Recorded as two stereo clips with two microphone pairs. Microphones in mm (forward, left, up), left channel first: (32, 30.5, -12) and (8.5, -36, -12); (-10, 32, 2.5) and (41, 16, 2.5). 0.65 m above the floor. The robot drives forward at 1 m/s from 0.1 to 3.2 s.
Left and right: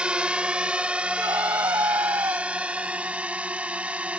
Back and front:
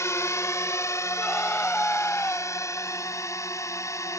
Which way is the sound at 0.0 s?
175° left.